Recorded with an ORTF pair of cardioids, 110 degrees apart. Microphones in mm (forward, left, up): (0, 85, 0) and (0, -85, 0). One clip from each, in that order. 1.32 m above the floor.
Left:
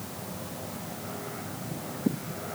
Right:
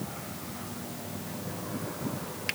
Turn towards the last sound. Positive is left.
No sound to turn to.